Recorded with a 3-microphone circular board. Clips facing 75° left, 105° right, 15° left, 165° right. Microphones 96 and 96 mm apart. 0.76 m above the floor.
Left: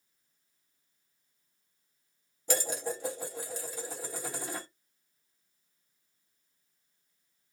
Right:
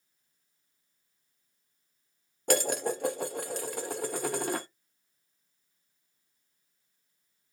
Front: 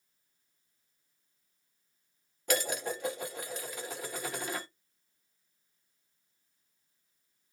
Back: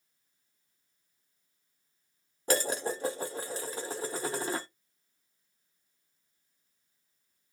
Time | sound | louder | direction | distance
2.5 | dishes clattering | right 5 dB, back 2 dB | 110° right | 0.6 m